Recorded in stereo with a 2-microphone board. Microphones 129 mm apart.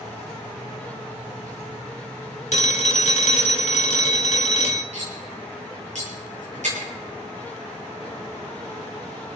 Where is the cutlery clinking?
65° right (ahead or behind), 9 m.